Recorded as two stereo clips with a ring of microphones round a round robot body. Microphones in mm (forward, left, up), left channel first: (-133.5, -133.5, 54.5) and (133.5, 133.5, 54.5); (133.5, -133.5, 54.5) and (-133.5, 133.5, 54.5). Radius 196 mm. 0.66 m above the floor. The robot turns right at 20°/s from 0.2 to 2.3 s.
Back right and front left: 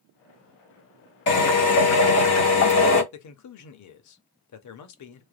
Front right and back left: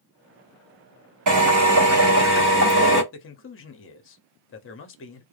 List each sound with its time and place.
1.3 s a drill: 165° left, 2 m; by 3.0 s 170° right, 2 m
3.1 s a man speaking: 100° right, 0.8 m